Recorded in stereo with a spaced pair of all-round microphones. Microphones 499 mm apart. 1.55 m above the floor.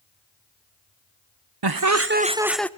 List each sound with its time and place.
1.6 s laughter: 55° right (ahead or behind), 0.8 m; by 2.7 s 5° left (ahead or behind), 1.2 m